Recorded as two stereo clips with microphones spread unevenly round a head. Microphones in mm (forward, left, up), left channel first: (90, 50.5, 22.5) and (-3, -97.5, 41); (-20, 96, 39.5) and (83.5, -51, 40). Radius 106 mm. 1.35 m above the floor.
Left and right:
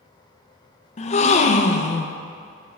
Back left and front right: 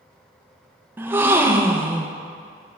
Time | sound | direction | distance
1.0 | a gasp | 20° left | 0.5 m